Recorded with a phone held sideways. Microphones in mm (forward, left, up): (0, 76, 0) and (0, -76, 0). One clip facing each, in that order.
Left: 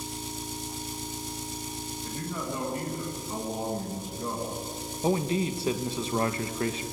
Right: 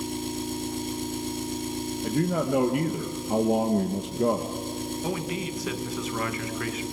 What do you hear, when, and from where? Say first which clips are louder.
0.0 s an engine running: right 7 dB; 65° right (ahead or behind), 1.9 m
2.0 s a man speaking: right 10 dB; 90° right, 1.2 m
5.0 s a man speaking: left 7 dB; 30° left (ahead or behind), 1.8 m